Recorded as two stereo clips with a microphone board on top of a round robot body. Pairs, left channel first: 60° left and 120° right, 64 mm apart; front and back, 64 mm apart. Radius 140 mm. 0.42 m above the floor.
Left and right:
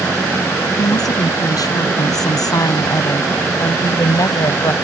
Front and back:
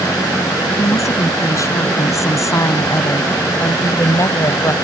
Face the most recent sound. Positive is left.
turn(degrees=35)